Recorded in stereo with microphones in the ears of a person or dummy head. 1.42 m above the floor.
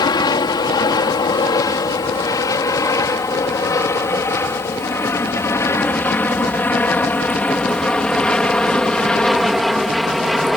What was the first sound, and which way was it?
An aircraft, 20° left (ahead or behind).